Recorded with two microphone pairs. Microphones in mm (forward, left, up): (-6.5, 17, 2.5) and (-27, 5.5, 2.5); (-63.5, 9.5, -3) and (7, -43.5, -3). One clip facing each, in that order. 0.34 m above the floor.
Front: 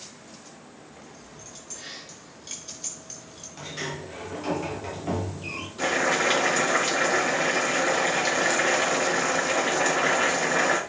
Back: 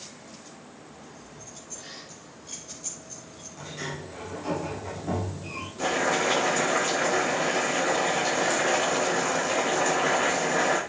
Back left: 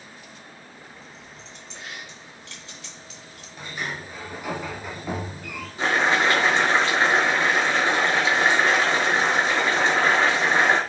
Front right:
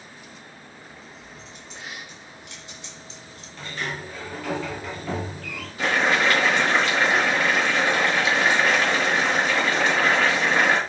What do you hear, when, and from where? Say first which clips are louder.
1.0 s keys jangling: even, front right 1 dB; 50° left, 4.5 m; by 3.5 s 20° left, 3 m
3.6 s a sliding door: front 2 dB, front right 1 dB; 65° left, 2.5 m
5.8 s boiling: front 2 dB, even; 80° left, 4.5 m